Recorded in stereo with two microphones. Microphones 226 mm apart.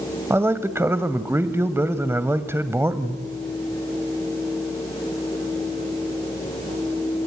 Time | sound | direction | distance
0.3 | a man speaking | 10° right (ahead or behind) | 1.3 m